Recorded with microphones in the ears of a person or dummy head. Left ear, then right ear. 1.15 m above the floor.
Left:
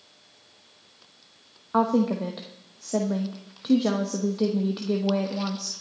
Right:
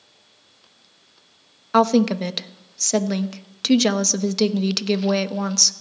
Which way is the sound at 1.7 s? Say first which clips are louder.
Right 6 dB; 60° right (ahead or behind).